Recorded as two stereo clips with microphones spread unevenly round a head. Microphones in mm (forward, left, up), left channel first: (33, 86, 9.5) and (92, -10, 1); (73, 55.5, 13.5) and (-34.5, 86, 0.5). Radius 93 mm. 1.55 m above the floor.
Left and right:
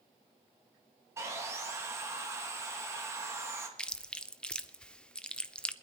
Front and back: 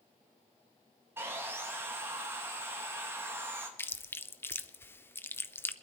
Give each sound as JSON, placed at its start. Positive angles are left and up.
{"t": 1.2, "sound": "sawing", "azimuth_deg": -120, "distance_m": 0.9}
{"t": 3.8, "sound": "chewing", "azimuth_deg": 45, "distance_m": 0.8}